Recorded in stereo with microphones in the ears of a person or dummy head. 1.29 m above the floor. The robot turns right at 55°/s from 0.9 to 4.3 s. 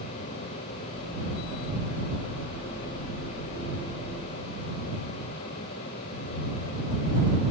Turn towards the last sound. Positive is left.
No sound to turn to.